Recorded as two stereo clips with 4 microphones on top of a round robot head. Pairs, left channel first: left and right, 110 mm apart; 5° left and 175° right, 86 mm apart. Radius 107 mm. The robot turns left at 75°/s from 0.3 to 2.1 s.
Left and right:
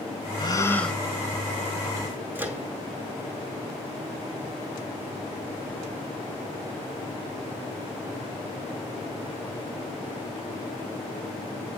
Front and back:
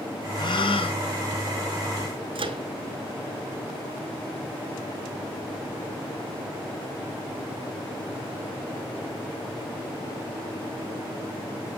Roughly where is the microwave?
Behind.